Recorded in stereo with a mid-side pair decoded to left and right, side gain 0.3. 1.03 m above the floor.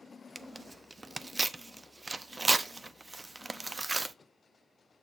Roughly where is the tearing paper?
Ahead right.